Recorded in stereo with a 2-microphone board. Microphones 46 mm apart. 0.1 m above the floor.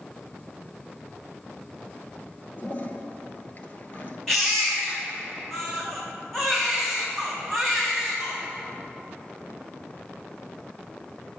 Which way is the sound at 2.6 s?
40° left (ahead or behind).